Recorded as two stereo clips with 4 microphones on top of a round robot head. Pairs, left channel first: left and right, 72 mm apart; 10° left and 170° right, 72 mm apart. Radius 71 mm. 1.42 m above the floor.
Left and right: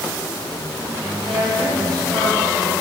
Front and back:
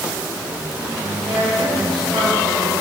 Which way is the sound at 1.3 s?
135° right.